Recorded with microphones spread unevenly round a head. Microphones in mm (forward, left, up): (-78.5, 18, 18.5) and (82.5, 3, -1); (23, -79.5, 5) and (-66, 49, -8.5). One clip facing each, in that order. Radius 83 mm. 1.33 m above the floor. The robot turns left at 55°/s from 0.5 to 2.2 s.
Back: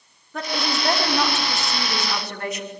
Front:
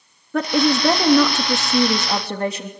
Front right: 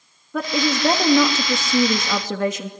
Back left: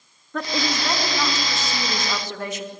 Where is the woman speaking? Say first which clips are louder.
Front 9 dB, front right 4 dB; 25° left, 2.5 m; by 2.7 s 65° right, 2.5 m.